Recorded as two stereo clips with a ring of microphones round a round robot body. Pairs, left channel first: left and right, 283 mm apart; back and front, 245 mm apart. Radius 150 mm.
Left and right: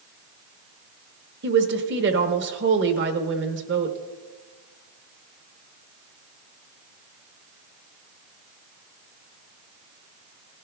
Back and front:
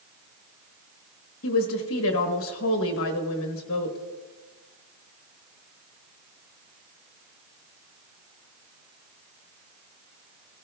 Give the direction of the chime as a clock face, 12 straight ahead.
I don't hear a chime.